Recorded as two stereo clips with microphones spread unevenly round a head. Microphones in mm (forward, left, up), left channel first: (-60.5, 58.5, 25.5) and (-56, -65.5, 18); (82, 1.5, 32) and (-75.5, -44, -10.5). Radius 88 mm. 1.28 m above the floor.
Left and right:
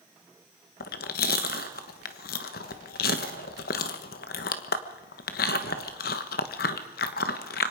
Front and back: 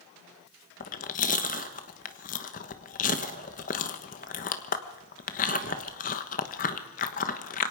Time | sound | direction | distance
0.8 | chewing | 65° left | 1.2 m